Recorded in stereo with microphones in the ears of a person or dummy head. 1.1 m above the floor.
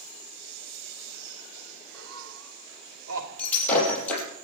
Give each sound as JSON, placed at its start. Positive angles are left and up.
{"t": 1.9, "sound": "laughter", "side_deg": -80, "distance_m": 3.5}
{"t": 3.4, "sound": "breaking glass", "side_deg": 10, "distance_m": 5.0}